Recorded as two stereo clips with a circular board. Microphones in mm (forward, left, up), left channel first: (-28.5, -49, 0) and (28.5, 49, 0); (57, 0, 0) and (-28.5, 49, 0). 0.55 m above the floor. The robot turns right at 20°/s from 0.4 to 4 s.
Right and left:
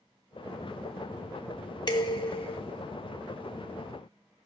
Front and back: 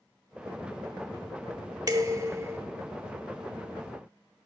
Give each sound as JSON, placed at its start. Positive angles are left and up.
{"t": 1.9, "sound": "dishes clattering", "azimuth_deg": -165, "distance_m": 0.7}